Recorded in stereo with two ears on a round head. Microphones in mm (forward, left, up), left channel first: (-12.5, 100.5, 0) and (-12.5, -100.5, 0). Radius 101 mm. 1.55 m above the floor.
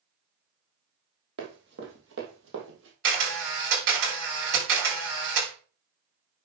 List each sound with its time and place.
1.4 s running footsteps: 50° right (ahead or behind), 3 m; by 2.9 s 60° right (ahead or behind), 3 m
3.0 s a camera shutter: 60° right (ahead or behind), 6.5 m